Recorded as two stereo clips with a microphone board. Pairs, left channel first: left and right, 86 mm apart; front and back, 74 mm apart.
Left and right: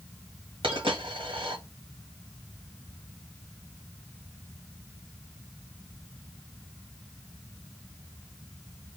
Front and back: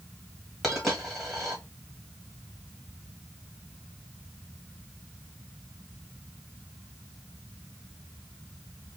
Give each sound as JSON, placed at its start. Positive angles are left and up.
{"t": 0.6, "sound": "a dropped coin", "azimuth_deg": -85, "distance_m": 1.9}